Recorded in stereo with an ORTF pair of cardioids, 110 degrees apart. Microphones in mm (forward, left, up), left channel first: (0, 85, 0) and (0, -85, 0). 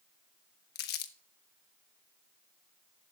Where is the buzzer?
I don't hear a buzzer.